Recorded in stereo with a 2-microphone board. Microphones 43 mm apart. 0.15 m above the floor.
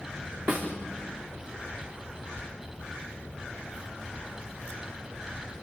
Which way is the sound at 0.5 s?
55° right (ahead or behind).